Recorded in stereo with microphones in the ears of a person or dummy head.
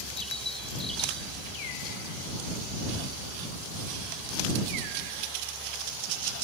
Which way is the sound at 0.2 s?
5° left (ahead or behind).